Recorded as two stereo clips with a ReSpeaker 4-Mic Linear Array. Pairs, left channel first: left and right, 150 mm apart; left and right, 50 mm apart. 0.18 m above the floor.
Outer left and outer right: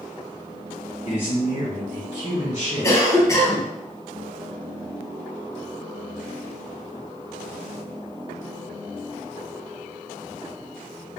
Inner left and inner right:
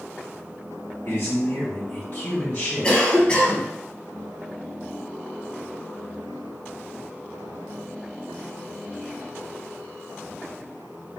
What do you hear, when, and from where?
1.1 s a man speaking: 45° left (ahead or behind), 1.7 m; by 3.0 s 25° left (ahead or behind), 1.9 m
2.8 s a cough: 20° left (ahead or behind), 1.2 m